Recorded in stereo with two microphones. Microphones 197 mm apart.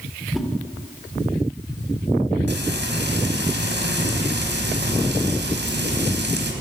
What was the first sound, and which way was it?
A whoosh, centre (ahead or behind).